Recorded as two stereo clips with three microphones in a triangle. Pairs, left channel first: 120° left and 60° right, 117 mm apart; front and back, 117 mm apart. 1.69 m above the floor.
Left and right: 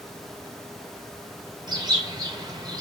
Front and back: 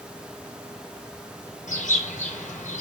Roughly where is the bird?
Ahead.